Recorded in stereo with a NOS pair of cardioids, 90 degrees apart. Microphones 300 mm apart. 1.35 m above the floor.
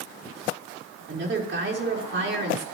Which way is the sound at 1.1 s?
40° right.